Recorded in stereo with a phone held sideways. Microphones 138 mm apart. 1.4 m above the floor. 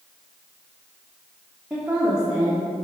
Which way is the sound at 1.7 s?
5° right (ahead or behind).